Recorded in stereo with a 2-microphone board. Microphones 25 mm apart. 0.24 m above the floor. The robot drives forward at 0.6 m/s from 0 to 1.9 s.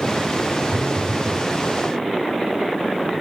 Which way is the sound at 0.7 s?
5° left (ahead or behind).